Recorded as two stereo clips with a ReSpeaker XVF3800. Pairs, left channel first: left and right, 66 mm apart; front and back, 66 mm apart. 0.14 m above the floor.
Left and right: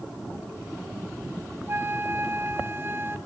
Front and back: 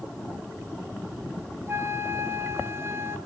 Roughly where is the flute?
Behind right.